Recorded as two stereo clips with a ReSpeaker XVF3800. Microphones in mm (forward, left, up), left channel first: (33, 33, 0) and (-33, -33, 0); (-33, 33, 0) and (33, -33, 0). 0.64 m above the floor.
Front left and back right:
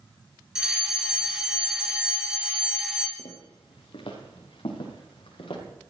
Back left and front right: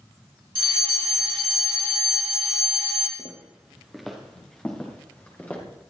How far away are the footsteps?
About 4 m.